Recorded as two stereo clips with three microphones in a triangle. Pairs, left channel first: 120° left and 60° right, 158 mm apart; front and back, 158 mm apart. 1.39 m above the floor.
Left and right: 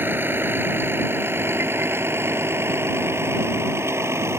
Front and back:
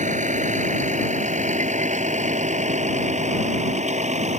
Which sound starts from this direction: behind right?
A vehicle, at 0.0 s.